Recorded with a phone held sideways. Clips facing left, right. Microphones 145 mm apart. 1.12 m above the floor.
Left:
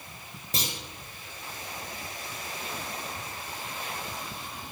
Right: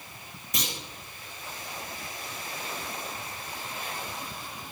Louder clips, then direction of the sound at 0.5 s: Left 1 dB; 30° left (ahead or behind).